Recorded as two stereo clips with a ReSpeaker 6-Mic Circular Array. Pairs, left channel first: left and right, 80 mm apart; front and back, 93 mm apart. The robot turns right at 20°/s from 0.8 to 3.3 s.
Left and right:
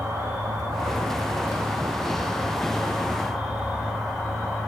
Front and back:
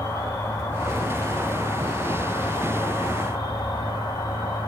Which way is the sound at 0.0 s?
50° right.